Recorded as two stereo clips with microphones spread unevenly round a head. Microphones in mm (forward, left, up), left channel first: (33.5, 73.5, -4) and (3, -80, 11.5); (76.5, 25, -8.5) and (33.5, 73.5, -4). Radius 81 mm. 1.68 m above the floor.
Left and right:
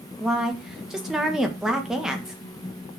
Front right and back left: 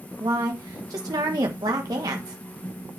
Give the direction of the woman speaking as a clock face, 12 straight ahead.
6 o'clock.